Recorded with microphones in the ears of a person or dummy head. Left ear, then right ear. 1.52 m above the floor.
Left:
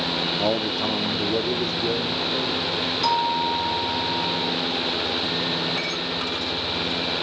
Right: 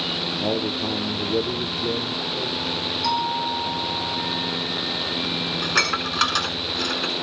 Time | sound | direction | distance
0.4 | a man speaking | 45° left (ahead or behind) | 1.1 m
3.0 | a doorbell | 55° left (ahead or behind) | 3 m
5.6 | dishes clattering | 55° right (ahead or behind) | 3.5 m